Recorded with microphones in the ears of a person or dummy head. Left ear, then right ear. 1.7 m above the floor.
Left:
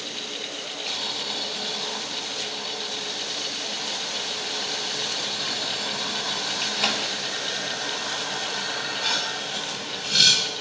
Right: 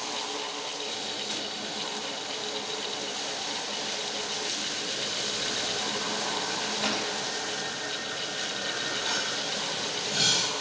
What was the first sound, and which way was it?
Boiling, 40° left (ahead or behind).